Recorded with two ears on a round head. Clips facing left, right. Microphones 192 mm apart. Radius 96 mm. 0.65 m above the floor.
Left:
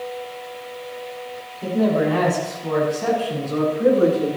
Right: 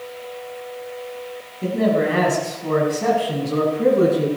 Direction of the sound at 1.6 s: 25° right (ahead or behind).